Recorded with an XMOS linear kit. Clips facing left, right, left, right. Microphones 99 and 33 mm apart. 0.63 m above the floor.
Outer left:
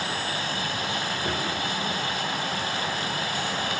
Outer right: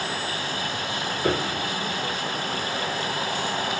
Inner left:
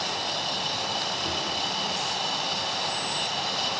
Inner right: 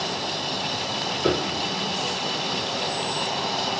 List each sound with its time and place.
1.2 s a piano: 80° right, 1.0 m